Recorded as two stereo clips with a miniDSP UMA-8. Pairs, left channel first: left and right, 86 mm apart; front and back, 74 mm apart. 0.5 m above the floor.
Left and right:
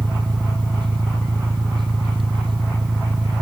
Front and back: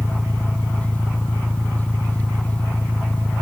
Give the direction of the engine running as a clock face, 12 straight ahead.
2 o'clock.